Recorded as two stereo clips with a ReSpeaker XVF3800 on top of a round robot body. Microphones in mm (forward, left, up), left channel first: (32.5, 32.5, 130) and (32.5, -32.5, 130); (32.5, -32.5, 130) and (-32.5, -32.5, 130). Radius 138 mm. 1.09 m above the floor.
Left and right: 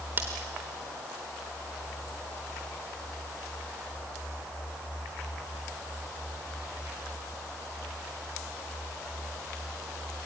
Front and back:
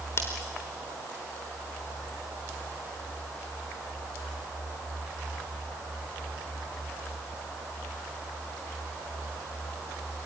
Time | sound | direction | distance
0.2 | scissors | 40° right | 0.9 m